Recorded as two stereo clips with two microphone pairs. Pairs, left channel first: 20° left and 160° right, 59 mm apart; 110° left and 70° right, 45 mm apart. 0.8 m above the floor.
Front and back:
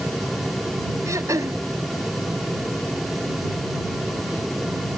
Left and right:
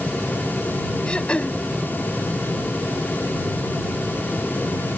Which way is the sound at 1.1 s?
175° left.